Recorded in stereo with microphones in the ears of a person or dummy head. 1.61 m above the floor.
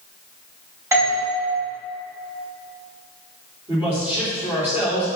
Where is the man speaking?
10° right (ahead or behind), 3.5 m.